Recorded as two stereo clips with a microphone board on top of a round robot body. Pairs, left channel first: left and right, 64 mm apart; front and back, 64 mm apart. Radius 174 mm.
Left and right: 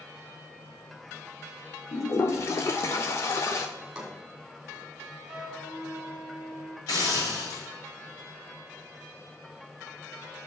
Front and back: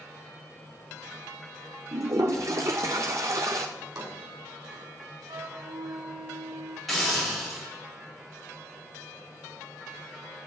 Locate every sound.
1.9 s a toilet flushing: 140° left, 0.5 m
3.8 s a drawer: 160° right, 2 m
5.3 s a flute: 165° right, 1.8 m
6.9 s a hiss: 90° left, 6 m